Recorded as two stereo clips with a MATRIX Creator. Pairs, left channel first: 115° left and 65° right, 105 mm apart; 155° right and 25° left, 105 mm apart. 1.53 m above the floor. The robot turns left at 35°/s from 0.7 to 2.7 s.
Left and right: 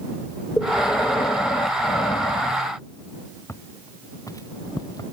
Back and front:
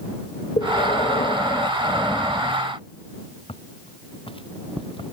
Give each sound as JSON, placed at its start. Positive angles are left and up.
{"t": 0.6, "sound": "breathing", "azimuth_deg": -170}
{"t": 3.5, "sound": "footsteps", "azimuth_deg": 175}